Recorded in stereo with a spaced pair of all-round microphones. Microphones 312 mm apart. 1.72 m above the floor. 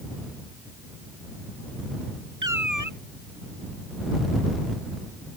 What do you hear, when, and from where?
2.4 s a cat meowing: 75° right (ahead or behind)